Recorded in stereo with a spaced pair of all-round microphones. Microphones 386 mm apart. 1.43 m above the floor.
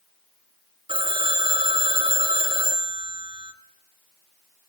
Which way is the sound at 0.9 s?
15° right (ahead or behind).